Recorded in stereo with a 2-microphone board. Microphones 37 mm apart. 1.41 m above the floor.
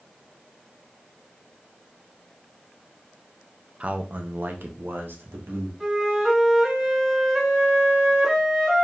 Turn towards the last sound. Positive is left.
turn(degrees=-10)  # may be behind; listen again after turning